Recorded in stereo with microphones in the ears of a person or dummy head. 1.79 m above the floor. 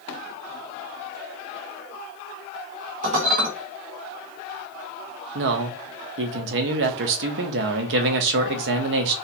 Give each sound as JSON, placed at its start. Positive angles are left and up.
{"t": 3.0, "sound": "dishes clattering", "side_deg": -50, "distance_m": 1.5}
{"t": 5.3, "sound": "a man speaking", "side_deg": -65, "distance_m": 0.8}